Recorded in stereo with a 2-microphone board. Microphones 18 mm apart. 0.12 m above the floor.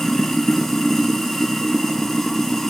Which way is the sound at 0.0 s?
20° left (ahead or behind).